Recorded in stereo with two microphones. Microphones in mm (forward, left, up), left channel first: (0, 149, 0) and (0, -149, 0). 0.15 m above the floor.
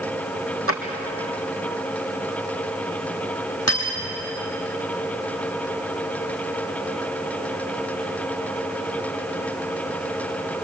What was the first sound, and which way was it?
A drawer, 45° right (ahead or behind).